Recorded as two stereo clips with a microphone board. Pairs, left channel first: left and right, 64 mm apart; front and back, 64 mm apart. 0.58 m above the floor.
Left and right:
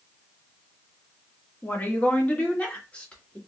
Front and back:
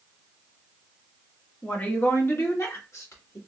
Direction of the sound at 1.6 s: 50° left.